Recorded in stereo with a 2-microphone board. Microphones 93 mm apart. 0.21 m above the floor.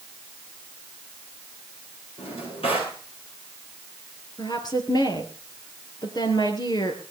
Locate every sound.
2.2 s a drawer: 80° left, 9 m
4.4 s a woman speaking: 45° left (ahead or behind), 3.5 m